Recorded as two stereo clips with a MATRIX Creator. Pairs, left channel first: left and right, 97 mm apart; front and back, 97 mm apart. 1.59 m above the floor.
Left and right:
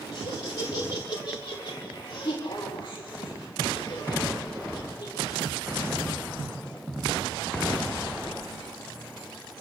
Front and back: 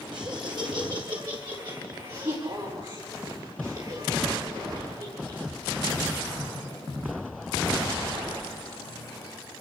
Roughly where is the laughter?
Behind left.